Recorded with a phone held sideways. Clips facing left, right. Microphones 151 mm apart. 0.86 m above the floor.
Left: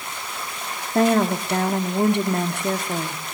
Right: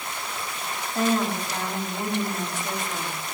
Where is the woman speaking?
60° left (ahead or behind), 1.4 m.